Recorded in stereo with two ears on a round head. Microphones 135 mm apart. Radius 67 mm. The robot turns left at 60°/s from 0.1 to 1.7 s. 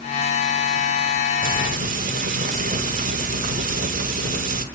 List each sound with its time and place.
1.4 s frying: 60° right (ahead or behind), 1.4 m; by 4.7 s 55° right (ahead or behind), 1.4 m